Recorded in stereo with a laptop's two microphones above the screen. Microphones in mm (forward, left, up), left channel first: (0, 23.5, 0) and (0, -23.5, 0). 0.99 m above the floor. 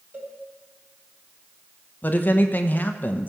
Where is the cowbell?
40° right (ahead or behind), 5.5 m.